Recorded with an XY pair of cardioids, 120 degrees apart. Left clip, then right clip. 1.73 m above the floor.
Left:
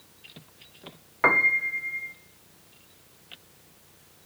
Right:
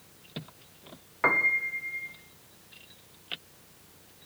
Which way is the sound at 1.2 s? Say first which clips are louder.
Left 4 dB; 25° left.